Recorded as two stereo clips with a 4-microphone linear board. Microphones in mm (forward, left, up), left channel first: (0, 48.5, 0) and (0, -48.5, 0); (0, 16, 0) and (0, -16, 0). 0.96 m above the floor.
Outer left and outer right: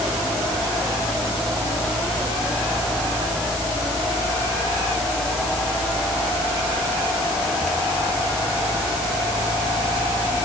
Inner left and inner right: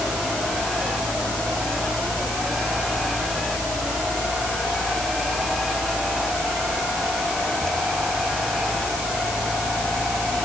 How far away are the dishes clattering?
No dishes clattering in this recording.